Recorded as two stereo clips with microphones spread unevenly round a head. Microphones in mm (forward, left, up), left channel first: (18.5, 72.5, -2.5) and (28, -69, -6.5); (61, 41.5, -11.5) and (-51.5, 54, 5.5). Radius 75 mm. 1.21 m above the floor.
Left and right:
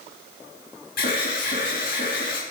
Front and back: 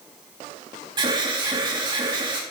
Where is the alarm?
125° left, 4 m.